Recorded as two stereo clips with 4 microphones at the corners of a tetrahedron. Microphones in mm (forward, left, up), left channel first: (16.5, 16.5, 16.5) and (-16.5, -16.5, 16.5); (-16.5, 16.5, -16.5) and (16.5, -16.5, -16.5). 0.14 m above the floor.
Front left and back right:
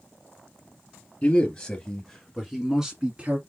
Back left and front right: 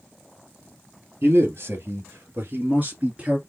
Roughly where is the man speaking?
Ahead.